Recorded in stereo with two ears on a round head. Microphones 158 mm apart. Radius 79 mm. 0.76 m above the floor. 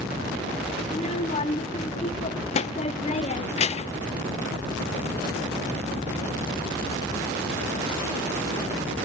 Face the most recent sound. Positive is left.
turn(degrees=35)  # may be behind; listen again after turning